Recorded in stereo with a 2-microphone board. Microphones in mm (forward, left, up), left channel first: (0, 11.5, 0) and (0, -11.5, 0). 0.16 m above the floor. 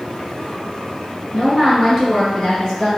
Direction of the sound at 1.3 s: 5° left (ahead or behind).